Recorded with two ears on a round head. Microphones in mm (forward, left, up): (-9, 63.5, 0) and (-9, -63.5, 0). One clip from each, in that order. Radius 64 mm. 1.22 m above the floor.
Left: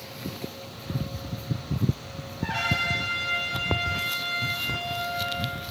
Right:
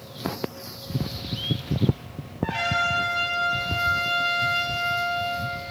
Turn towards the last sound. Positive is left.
turn(degrees=10)  # may be behind; listen again after turning